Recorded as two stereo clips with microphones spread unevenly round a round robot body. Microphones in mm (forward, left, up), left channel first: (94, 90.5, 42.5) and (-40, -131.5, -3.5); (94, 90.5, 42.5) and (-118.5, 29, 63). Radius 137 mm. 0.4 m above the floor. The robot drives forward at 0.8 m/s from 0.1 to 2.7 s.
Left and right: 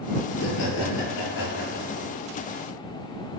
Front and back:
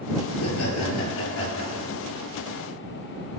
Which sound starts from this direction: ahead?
Laughter, at 0.3 s.